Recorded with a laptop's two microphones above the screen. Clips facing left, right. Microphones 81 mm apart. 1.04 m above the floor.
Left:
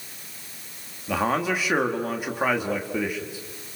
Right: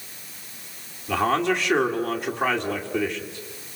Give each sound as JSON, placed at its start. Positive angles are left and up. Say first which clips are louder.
{"t": 1.1, "sound": "a man speaking", "louder": "right 2 dB", "side_deg": 10, "distance_m": 2.0}